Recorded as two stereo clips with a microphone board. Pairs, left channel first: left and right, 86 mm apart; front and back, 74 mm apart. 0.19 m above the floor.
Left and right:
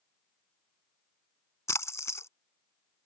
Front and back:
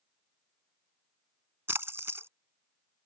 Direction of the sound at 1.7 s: 135° left.